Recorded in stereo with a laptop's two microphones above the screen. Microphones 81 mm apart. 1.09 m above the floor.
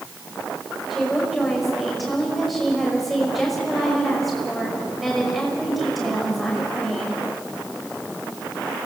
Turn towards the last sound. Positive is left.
turn(degrees=0)  # may be behind; listen again after turning